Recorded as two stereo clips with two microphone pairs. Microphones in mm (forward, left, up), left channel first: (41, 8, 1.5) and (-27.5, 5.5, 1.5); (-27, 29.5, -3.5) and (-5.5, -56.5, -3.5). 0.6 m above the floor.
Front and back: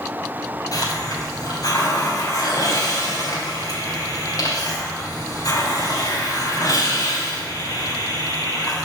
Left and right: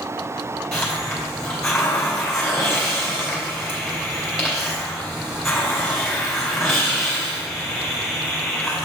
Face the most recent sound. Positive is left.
turn(degrees=20)